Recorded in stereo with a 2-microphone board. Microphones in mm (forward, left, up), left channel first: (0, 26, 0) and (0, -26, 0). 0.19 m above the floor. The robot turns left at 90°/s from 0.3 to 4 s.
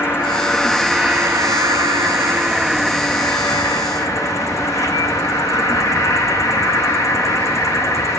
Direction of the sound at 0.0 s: 50° left.